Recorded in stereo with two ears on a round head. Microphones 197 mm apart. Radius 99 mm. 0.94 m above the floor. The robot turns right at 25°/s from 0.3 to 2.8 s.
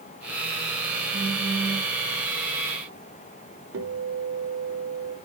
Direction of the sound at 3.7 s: 70° right (ahead or behind).